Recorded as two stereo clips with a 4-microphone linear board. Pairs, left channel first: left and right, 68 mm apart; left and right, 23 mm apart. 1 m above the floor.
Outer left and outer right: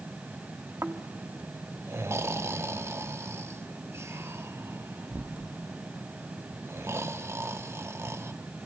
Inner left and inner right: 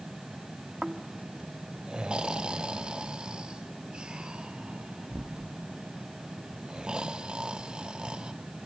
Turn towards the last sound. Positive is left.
turn(degrees=-40)  # may be behind; listen again after turning